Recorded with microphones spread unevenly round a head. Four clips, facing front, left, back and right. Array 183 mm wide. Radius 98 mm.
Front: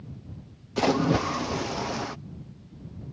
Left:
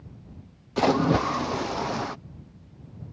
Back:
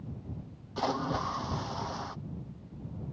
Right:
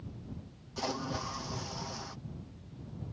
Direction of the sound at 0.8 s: 55° left.